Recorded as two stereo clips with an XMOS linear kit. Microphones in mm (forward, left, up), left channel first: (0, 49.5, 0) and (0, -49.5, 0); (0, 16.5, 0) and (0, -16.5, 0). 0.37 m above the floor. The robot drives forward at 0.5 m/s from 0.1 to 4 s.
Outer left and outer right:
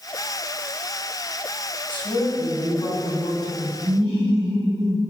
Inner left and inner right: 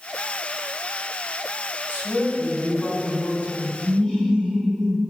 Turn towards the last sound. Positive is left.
turn(degrees=25)  # may be behind; listen again after turning